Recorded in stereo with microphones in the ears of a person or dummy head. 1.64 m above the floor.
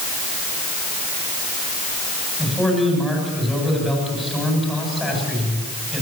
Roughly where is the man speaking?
Centre.